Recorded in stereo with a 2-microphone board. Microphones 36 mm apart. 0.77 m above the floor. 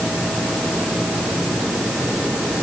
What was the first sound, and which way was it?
Only background noise.